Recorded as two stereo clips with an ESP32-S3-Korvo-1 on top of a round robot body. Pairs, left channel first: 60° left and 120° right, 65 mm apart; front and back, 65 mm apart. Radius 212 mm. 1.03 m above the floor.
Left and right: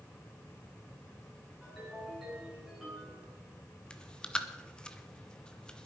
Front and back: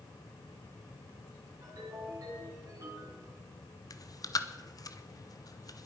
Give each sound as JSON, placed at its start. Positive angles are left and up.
{"t": 1.6, "sound": "a ringtone", "azimuth_deg": 155, "distance_m": 9.5}
{"t": 3.9, "sound": "chewing", "azimuth_deg": -15, "distance_m": 1.1}